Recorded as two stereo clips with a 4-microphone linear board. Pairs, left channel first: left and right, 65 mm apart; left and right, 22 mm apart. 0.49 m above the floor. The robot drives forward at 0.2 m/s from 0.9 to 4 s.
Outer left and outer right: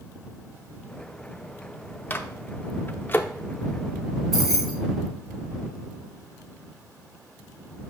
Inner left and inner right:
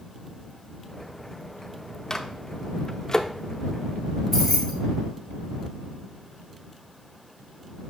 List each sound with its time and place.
2.1 s a microwave: 30° left (ahead or behind), 0.6 m
4.3 s keys jangling: 5° left (ahead or behind), 3 m